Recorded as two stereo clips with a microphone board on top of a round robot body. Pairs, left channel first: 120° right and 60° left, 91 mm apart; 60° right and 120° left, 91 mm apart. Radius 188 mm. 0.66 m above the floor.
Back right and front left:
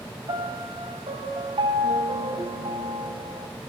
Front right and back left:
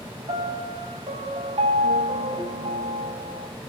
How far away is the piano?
About 5 m.